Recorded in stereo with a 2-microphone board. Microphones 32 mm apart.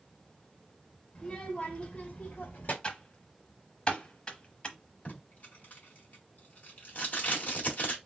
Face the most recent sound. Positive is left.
turn(degrees=55)  # may be behind; listen again after turning